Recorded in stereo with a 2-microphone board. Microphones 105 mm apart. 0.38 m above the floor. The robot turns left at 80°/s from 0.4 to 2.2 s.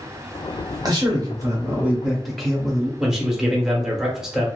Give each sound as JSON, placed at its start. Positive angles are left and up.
{"t": 0.8, "sound": "a man speaking", "azimuth_deg": -75, "distance_m": 1.0}
{"t": 3.0, "sound": "a man speaking", "side_deg": -5, "distance_m": 0.9}